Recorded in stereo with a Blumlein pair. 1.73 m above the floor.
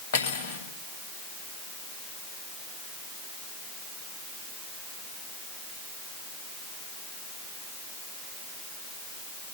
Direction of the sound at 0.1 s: 55° left.